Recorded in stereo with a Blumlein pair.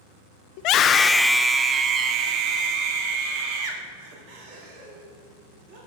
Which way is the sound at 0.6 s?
45° left.